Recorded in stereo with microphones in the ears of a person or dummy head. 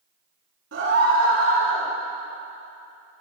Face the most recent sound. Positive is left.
turn(degrees=-85)